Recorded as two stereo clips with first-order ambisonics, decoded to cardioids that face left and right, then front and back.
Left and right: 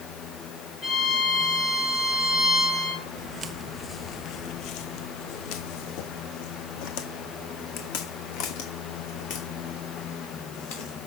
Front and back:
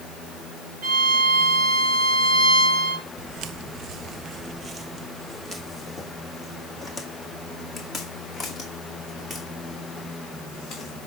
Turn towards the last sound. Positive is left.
turn(degrees=80)